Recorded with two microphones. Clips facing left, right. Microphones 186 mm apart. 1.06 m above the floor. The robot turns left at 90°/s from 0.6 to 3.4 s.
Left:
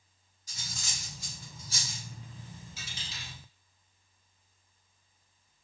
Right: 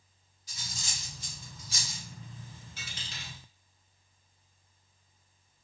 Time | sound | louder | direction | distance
0.5 | cutlery clinking | even | 45° left (ahead or behind) | 1.9 m
2.8 | a dropped coin | even | 55° right (ahead or behind) | 1.9 m